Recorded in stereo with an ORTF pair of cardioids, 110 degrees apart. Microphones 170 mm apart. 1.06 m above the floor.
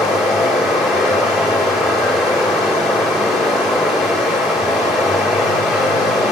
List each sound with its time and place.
0.0 s running water: straight ahead, 1.5 m